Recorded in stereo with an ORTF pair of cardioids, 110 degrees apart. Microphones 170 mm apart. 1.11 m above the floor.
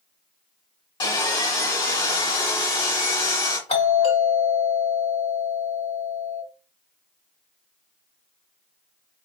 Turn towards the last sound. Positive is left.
turn(degrees=40)